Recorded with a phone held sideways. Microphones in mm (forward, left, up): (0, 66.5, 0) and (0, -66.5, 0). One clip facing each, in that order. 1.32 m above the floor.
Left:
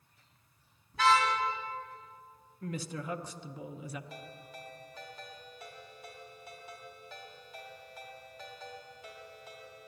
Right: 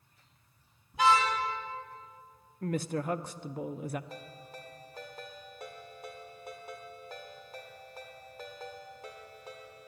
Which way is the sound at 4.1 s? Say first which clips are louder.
Right 1 dB; 50° right (ahead or behind).